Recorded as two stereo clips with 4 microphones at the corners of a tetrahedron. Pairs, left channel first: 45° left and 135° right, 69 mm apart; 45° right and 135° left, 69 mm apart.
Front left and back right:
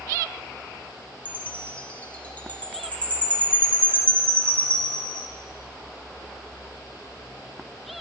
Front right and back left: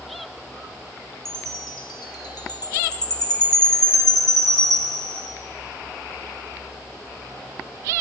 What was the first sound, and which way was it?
A chime, 25° right.